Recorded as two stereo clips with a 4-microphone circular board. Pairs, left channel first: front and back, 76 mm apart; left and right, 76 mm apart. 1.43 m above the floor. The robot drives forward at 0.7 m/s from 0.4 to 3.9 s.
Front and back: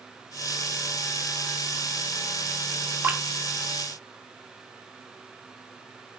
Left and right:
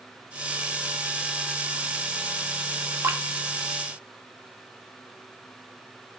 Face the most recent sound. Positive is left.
turn(degrees=-150)